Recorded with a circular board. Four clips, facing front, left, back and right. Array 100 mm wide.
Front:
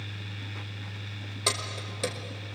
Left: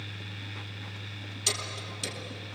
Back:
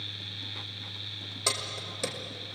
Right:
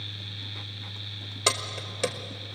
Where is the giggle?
No giggle in this recording.